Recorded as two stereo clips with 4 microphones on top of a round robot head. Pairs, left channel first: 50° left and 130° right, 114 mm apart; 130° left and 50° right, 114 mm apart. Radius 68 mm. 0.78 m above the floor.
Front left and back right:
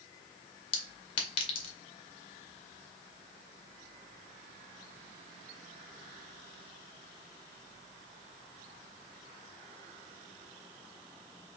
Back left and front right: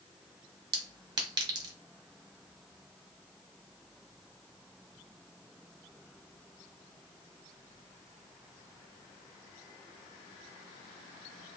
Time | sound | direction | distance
0.7 | a clink | 5° left | 1.4 m